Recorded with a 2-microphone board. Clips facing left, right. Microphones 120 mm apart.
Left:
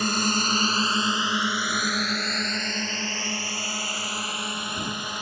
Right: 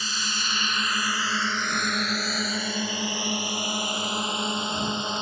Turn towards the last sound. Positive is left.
turn(degrees=-25)  # may be behind; listen again after turning